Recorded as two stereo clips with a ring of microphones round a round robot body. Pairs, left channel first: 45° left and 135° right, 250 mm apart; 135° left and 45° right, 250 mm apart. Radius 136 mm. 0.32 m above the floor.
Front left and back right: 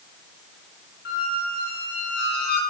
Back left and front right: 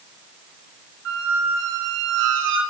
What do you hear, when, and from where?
1.1 s a squeak: 5° right, 2 m